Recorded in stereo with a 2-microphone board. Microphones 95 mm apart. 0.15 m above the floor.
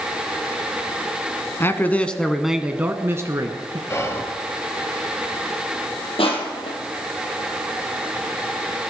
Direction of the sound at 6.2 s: 70° left (ahead or behind).